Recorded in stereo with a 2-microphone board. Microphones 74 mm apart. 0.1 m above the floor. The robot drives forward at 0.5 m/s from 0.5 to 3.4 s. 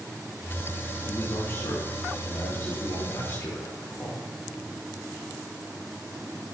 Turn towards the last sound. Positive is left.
turn(degrees=45)  # may be behind; listen again after turning